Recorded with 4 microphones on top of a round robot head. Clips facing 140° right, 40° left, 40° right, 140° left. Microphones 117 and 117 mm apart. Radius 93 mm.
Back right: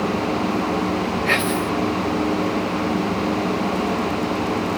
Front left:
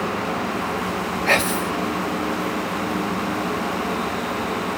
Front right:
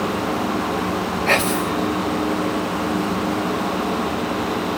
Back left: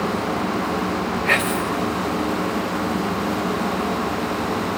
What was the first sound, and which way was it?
Whispering, 5° left.